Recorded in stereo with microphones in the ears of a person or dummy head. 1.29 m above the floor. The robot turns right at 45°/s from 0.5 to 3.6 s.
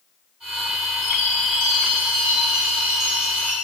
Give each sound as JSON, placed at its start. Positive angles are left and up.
{"t": 1.0, "sound": "a chime", "azimuth_deg": 160, "distance_m": 7.0}